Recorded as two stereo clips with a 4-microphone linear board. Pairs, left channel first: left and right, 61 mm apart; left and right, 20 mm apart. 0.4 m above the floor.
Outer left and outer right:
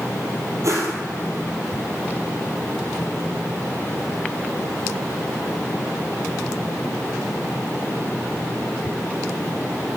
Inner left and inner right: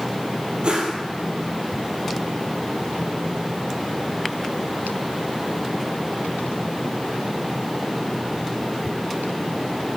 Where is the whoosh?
55° right (ahead or behind), 1.9 m.